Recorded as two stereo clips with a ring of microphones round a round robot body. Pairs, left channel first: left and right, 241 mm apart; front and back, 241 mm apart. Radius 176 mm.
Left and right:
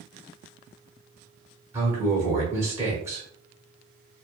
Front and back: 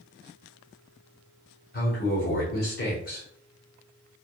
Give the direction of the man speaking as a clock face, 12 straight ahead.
1 o'clock.